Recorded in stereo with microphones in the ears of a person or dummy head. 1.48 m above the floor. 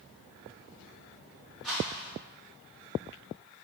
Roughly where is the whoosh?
Centre.